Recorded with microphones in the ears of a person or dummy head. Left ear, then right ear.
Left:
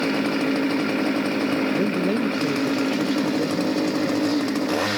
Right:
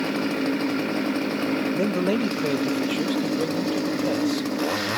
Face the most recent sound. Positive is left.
turn(degrees=-25)  # may be behind; listen again after turning